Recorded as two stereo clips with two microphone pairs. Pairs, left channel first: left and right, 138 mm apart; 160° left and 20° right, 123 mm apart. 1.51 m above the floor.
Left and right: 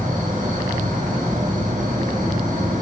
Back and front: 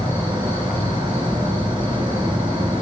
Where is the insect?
75° right, 6 m.